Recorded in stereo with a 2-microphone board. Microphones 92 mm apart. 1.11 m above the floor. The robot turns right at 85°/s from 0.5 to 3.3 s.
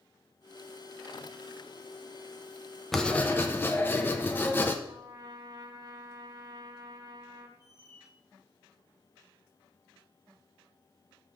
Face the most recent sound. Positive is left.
turn(degrees=30)  # may be behind; listen again after turning